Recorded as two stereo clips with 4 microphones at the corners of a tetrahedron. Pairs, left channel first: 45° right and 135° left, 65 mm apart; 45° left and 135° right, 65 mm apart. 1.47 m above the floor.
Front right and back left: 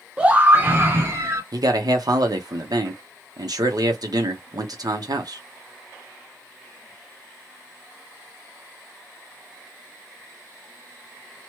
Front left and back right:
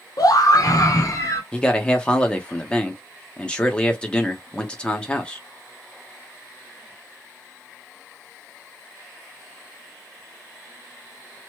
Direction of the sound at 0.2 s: 60° left.